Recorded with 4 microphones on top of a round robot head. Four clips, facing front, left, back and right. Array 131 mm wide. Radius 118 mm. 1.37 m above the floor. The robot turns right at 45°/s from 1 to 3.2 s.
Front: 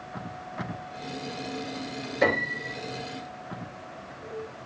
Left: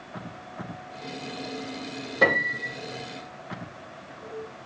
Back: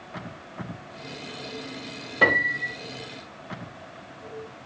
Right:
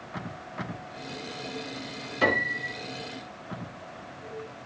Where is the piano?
150° left, 3 m; by 2.7 s 175° left, 3 m.